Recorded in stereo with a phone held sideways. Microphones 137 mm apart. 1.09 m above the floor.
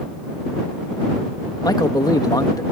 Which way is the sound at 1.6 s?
30° left (ahead or behind).